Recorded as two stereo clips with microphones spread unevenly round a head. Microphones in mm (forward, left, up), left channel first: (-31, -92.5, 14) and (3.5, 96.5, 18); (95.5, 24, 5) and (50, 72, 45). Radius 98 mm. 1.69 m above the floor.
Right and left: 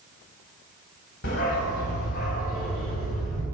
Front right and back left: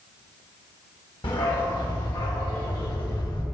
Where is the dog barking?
65° right, 5 m; by 3.4 s 50° right, 6.5 m.